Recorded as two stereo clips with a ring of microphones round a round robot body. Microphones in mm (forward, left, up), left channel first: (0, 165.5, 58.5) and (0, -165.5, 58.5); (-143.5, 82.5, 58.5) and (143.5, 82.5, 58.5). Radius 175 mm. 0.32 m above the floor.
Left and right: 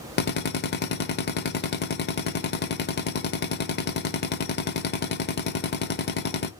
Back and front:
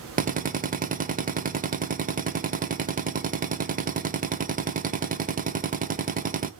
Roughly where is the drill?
Ahead left.